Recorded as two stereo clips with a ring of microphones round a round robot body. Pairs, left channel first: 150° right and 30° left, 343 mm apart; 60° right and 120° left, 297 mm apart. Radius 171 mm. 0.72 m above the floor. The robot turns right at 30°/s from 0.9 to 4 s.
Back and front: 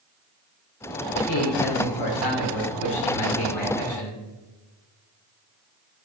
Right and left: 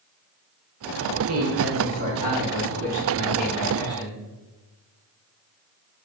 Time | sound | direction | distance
1.3 | a man speaking | 170° left | 2.0 m